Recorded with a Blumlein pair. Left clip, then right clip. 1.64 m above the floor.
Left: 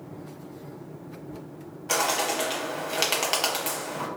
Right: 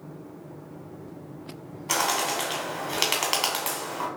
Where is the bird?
5° right, 1.3 m.